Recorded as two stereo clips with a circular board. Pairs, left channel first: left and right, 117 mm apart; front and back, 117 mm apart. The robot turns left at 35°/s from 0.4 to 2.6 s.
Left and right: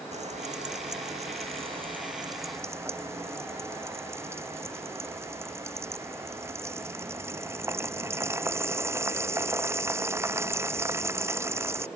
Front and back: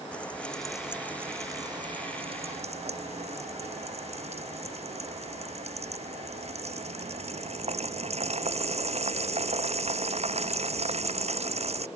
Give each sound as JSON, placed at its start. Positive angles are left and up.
{"t": 0.1, "sound": "frying", "azimuth_deg": -80}